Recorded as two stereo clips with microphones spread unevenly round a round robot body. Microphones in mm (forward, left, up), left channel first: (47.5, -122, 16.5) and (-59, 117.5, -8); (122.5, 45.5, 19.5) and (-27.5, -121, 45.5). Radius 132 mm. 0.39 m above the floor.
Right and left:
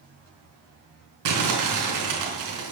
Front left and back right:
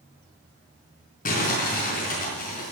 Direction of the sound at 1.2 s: 105° left.